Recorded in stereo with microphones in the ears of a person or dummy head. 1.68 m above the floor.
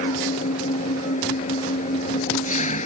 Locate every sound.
0.0 s an engine running: 40° left (ahead or behind)